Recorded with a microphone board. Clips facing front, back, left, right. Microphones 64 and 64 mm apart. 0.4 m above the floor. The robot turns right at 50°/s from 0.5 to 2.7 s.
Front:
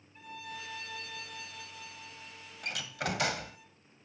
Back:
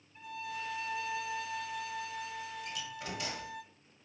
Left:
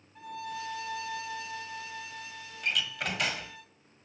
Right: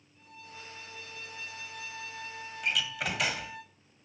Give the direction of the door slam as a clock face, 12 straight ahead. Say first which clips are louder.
Front 5 dB, even; 12 o'clock.